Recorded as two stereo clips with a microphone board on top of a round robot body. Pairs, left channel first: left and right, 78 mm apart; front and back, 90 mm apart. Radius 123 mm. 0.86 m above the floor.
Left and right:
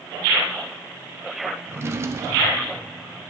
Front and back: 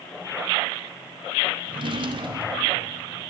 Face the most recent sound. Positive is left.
turn(degrees=-150)